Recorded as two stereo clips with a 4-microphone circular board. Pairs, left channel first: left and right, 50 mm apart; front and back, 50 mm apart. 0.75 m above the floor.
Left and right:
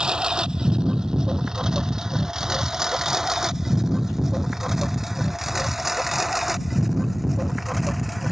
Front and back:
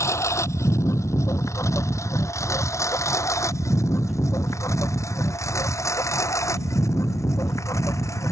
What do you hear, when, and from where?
0.0 s a lawn mower: 15° right; by 8.3 s straight ahead